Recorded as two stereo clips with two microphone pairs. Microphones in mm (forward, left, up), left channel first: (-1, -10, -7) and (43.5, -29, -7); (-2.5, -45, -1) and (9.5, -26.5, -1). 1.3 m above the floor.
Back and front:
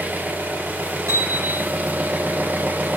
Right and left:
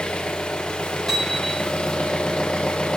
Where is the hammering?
40° right, 3 m.